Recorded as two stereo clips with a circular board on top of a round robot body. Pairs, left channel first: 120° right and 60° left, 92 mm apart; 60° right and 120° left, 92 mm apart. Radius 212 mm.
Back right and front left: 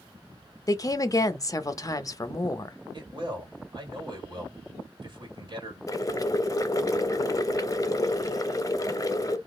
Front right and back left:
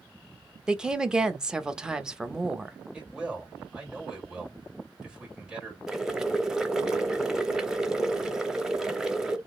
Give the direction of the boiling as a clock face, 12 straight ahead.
5 o'clock.